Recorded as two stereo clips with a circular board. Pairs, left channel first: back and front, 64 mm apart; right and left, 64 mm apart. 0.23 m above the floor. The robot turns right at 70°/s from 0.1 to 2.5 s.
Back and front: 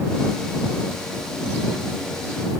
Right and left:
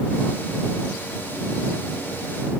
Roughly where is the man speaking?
No man speaking in this recording.